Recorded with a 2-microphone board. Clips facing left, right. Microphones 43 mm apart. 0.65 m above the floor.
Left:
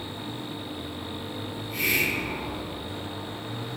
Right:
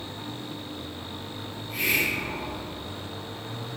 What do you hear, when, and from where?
1.5 s a hiss: 5° right (ahead or behind), 1.9 m